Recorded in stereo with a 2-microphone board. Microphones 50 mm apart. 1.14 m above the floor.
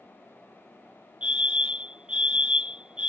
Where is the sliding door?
I don't hear a sliding door.